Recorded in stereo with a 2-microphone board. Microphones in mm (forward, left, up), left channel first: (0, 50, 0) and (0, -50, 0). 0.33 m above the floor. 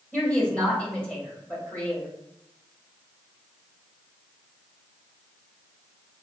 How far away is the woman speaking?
About 1.8 m.